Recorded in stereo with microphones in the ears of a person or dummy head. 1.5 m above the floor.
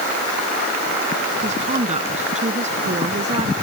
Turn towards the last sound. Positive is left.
turn(degrees=-35)  # may be behind; listen again after turning